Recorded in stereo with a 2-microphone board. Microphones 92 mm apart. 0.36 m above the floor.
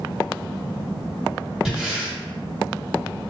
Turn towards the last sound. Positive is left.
turn(degrees=-5)  # may be behind; listen again after turning